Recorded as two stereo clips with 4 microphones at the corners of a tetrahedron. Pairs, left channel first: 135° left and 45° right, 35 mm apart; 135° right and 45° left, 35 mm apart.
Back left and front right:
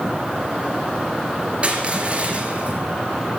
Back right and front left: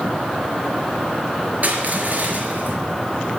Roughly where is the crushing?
Ahead.